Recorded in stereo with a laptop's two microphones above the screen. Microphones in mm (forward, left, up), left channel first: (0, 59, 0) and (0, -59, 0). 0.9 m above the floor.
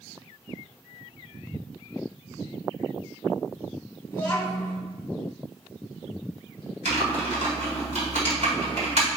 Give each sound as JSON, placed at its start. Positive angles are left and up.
{"t": 4.1, "sound": "a child speaking", "side_deg": 20, "distance_m": 0.9}
{"t": 6.8, "sound": "typing on a keyboard", "side_deg": -80, "distance_m": 1.7}